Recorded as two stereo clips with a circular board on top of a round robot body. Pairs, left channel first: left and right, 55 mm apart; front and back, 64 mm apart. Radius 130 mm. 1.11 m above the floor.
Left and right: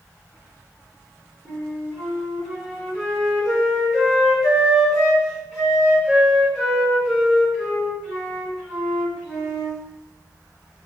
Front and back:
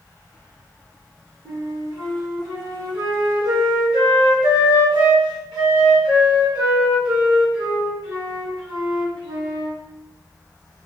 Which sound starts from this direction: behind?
A flute, at 1.4 s.